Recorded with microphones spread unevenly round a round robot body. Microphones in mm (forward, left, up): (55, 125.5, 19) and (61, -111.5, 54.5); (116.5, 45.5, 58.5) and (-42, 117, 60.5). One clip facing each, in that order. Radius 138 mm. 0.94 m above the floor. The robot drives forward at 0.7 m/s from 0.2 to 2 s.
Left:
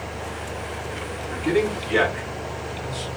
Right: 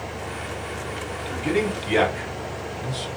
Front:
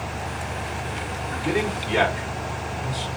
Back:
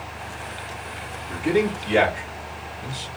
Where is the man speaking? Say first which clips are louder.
Left 2 dB, back 4 dB; 130° right, 2 m; by 3.1 s 140° right, 2.5 m.